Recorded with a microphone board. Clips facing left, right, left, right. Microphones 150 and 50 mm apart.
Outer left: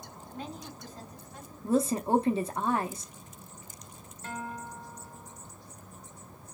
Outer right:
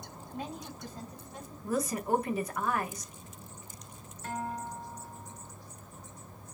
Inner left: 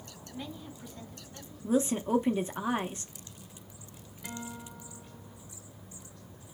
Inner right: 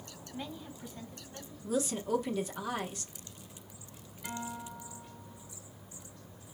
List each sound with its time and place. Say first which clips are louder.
0.3 s a woman speaking: outer right 1 dB, even; 15° right (ahead or behind), 3.5 m; by 1.5 s 20° right (ahead or behind), 4 m
1.6 s a woman speaking: outer left 4 dB, inner left 5 dB; 30° left (ahead or behind), 0.9 m
4.2 s a guitar: outer right 2 dB, inner right 2 dB; 5° right (ahead or behind), 3 m